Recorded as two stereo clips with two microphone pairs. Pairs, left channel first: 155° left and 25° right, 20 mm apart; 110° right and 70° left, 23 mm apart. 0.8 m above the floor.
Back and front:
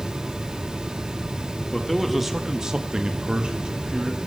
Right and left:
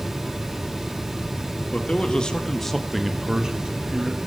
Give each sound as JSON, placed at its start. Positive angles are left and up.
{"t": 1.7, "sound": "a man speaking", "azimuth_deg": -125, "distance_m": 1.2}